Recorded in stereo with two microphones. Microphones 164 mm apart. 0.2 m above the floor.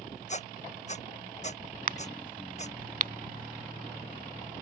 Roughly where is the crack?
Right.